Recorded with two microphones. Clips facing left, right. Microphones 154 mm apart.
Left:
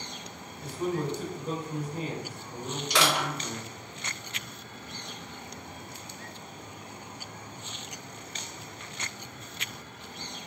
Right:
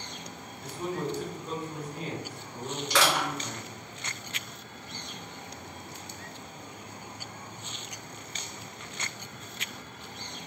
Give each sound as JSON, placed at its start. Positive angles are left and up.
{"t": 0.6, "sound": "a man speaking", "side_deg": 25, "distance_m": 1.9}
{"t": 2.9, "sound": "crushing", "side_deg": 10, "distance_m": 1.9}